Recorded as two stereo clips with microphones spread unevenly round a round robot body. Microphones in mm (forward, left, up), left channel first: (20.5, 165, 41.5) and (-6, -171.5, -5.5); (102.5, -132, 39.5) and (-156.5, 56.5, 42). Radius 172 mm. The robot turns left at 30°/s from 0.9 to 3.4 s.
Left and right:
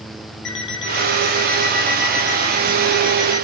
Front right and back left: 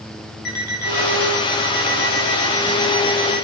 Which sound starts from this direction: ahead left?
An alarm clock, at 0.5 s.